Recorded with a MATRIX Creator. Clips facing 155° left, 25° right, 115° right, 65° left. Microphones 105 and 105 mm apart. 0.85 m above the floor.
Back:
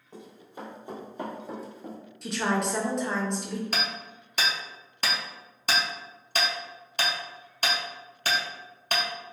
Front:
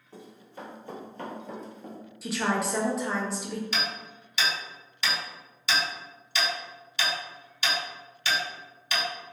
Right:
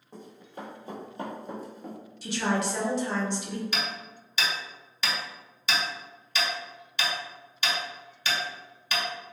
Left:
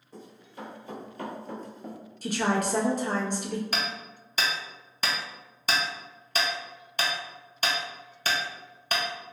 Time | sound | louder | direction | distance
0.1 | running footsteps | back 1 dB, right 1 dB | 135° right | 1.5 m
2.2 | a woman speaking | back 1 dB, left 1 dB | 65° left | 0.6 m
3.7 | hammering | back 1 dB, left 1 dB | 115° left | 0.5 m